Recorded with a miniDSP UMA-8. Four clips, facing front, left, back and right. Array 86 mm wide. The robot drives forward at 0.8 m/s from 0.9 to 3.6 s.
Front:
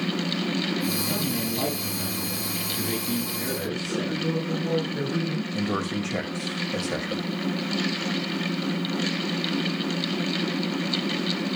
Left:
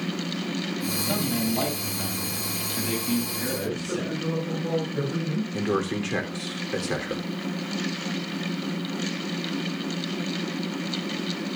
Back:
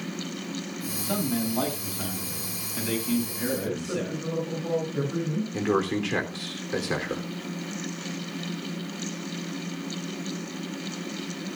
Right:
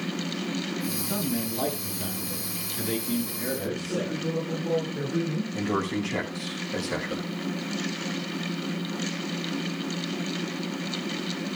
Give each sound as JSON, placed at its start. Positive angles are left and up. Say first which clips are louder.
{"t": 1.0, "sound": "a man speaking", "louder": "left 3 dB, even", "azimuth_deg": 120, "distance_m": 7.5}
{"t": 3.5, "sound": "a man speaking", "louder": "even, front 2 dB", "azimuth_deg": 125, "distance_m": 7.5}
{"t": 5.5, "sound": "a man speaking", "louder": "left 2 dB, back 5 dB", "azimuth_deg": 140, "distance_m": 3.5}